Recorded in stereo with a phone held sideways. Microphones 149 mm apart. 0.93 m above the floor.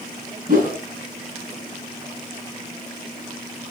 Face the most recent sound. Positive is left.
turn(degrees=-60)  # may be behind; listen again after turning